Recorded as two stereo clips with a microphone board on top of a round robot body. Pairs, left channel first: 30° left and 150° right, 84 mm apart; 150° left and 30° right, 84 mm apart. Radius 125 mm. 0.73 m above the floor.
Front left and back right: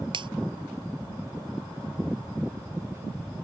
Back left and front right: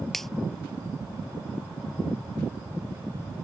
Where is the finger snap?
125° right.